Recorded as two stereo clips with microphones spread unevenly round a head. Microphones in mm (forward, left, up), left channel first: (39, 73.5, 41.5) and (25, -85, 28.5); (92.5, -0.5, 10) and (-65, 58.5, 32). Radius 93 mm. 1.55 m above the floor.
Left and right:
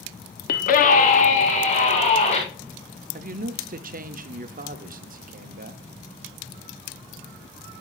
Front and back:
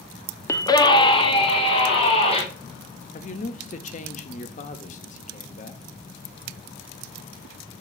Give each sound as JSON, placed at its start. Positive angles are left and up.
{"t": 0.5, "sound": "a scream", "azimuth_deg": 55, "distance_m": 0.8}
{"t": 3.1, "sound": "a man speaking", "azimuth_deg": -65, "distance_m": 0.8}